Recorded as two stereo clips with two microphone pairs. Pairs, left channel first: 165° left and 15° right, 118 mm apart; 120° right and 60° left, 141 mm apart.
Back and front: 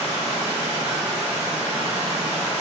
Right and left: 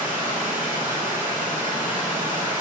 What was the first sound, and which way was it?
Running water, 10° right.